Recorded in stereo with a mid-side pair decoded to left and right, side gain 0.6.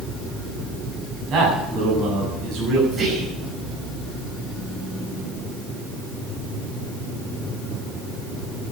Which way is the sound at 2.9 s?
45° right.